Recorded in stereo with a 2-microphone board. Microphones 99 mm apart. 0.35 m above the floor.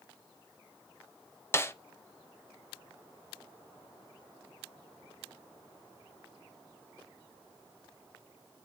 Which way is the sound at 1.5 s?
25° left (ahead or behind).